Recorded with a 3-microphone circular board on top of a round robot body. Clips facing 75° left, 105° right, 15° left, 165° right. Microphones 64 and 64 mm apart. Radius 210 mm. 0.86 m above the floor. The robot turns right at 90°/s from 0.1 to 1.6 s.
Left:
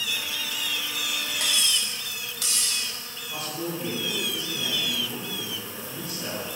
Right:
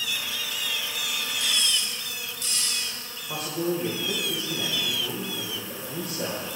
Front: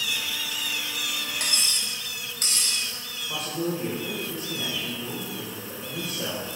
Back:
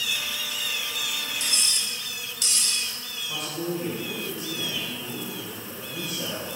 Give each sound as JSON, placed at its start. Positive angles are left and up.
{"t": 1.4, "sound": "cutlery clinking", "azimuth_deg": 50, "distance_m": 1.7}
{"t": 3.3, "sound": "a man speaking", "azimuth_deg": -60, "distance_m": 4.5}